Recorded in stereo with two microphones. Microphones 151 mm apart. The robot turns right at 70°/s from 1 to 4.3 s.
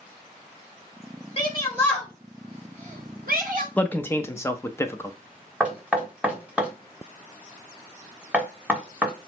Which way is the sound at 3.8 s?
10° left (ahead or behind).